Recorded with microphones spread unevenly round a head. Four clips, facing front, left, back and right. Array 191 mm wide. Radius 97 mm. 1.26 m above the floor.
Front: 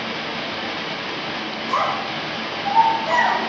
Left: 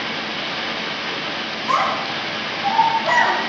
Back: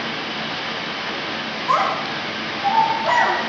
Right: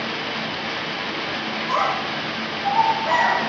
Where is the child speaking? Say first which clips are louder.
Left 3 dB, back 3 dB; 150° left, 8 m; by 3.4 s 145° left, 9 m.